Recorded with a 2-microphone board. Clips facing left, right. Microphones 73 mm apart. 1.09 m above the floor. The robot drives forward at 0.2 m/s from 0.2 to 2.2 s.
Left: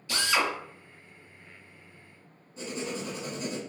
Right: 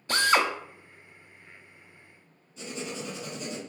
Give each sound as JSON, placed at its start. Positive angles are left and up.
{"t": 0.1, "sound": "a drill", "side_deg": -40, "distance_m": 0.6}
{"t": 2.6, "sound": "writing", "side_deg": 40, "distance_m": 2.0}